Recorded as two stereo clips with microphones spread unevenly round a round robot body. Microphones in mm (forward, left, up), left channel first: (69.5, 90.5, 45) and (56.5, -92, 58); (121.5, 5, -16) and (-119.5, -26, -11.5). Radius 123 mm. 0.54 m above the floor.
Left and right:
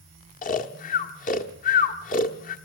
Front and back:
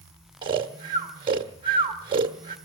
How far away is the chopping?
I don't hear chopping.